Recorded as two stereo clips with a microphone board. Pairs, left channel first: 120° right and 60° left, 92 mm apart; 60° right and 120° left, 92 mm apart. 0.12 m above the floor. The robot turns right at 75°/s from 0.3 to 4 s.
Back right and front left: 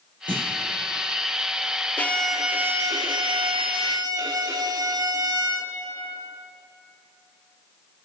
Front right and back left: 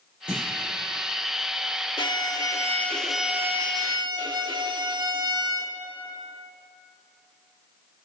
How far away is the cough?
No cough in this recording.